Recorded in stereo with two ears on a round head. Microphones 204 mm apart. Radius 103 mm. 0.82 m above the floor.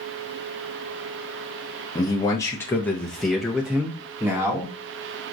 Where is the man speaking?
20° left (ahead or behind), 0.9 m; by 4.7 s 15° right (ahead or behind), 1.3 m.